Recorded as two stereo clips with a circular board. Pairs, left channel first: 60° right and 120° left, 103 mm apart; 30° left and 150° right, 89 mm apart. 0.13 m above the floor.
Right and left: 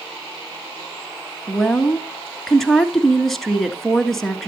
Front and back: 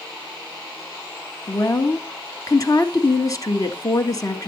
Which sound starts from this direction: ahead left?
A woman speaking, at 1.5 s.